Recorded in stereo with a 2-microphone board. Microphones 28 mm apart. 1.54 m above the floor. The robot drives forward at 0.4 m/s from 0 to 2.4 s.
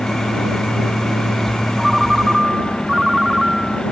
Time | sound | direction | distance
1.8 | a ringtone | 15° right (ahead or behind) | ?